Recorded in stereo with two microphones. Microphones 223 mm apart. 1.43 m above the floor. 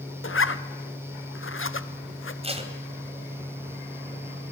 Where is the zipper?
65° left (ahead or behind), 1.0 m.